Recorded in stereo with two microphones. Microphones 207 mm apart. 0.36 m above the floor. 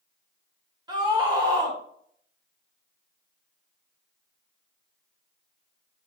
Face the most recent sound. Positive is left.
turn(degrees=-20)  # may be behind; listen again after turning